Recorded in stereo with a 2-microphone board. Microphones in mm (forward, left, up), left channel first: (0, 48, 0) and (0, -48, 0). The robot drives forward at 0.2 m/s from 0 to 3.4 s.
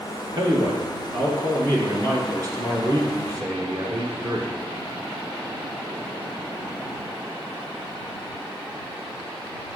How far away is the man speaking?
About 1.6 m.